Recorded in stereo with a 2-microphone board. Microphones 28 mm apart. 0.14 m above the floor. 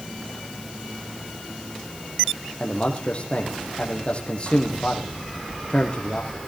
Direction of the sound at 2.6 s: 40° left (ahead or behind).